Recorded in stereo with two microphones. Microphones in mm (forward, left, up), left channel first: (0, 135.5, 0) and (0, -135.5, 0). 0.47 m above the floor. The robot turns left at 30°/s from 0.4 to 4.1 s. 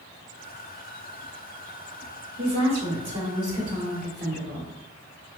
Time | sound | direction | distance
2.4 | a woman speaking | 70° right | 1.0 m